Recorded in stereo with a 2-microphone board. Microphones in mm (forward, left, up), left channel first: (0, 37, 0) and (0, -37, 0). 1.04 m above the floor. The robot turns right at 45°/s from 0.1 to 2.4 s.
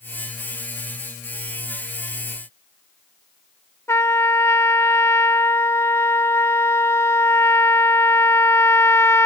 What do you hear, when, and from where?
3.9 s a trumpet: 35° left (ahead or behind)